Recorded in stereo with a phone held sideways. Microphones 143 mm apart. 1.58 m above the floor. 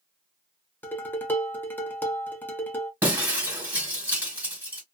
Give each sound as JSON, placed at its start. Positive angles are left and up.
{"t": 0.8, "sound": "dishes clattering", "side_deg": 15, "distance_m": 0.7}
{"t": 3.0, "sound": "breaking glass", "side_deg": -15, "distance_m": 1.8}